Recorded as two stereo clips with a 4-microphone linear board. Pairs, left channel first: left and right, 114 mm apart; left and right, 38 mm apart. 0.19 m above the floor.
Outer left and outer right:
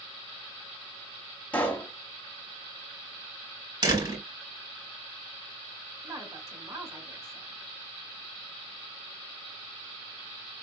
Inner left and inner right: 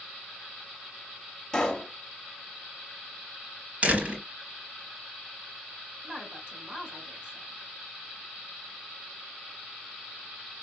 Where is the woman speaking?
30° right (ahead or behind), 2 m.